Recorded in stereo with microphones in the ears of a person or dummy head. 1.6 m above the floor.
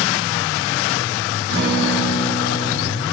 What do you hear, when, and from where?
1.5 s a guitar: 65° right (ahead or behind), 2.5 m